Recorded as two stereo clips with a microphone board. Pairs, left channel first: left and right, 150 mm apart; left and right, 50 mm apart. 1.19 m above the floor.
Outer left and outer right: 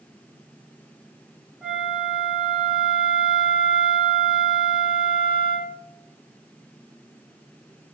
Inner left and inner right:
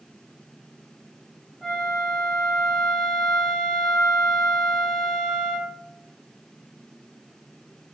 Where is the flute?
5° right (ahead or behind), 0.9 m.